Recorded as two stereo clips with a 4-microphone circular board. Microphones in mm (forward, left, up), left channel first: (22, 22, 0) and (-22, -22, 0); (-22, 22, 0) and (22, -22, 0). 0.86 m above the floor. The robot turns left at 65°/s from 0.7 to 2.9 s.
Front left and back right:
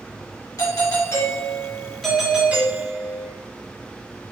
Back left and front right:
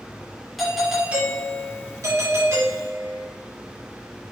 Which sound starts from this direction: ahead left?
A doorbell, at 0.6 s.